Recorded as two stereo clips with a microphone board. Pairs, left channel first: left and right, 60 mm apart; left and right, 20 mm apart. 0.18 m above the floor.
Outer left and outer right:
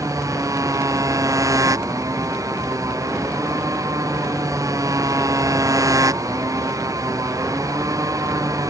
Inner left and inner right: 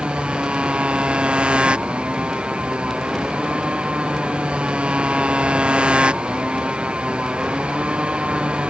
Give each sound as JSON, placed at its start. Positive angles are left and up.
{"t": 0.0, "sound": "a motorcycle", "side_deg": -70}